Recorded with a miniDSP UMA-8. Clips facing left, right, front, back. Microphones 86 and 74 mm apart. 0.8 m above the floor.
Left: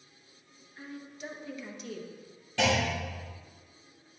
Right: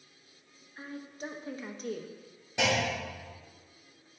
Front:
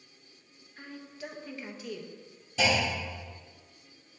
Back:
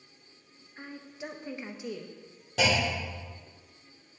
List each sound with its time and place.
0.8 s a woman speaking: 120° right, 0.7 m
2.6 s a clunk: 160° right, 2.5 m